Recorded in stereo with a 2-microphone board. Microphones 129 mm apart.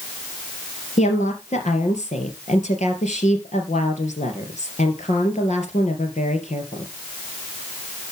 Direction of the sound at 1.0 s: 65° left (ahead or behind).